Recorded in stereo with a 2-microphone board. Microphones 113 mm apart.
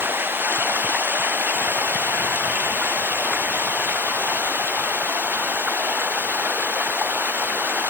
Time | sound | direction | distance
0.0 | running water | 20° right (ahead or behind) | ?